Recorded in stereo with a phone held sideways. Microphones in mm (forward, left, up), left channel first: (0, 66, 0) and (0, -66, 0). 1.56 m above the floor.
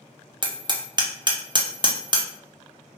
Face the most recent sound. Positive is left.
turn(degrees=-35)  # may be behind; listen again after turning